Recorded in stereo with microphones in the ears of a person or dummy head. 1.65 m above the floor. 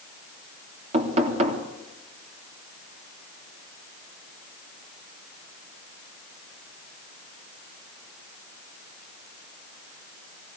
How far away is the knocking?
About 3 m.